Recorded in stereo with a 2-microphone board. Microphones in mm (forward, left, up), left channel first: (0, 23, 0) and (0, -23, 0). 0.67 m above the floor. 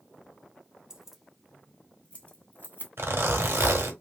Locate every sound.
0.9 s keys jangling: 15° right (ahead or behind), 0.8 m; by 2.9 s 45° left (ahead or behind), 1.4 m
3.0 s a zipper: 70° right (ahead or behind), 1.0 m